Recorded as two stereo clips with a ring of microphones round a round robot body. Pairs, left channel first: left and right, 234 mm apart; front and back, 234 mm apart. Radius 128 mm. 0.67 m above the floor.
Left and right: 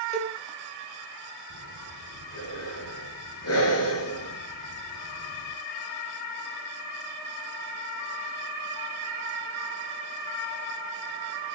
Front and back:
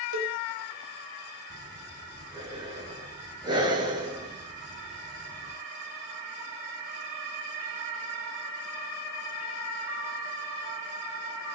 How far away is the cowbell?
About 4.5 m.